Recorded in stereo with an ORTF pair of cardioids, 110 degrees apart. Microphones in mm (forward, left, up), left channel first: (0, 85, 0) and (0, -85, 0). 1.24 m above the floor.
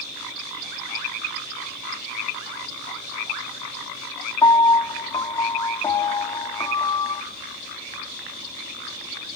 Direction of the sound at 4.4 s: 20° left.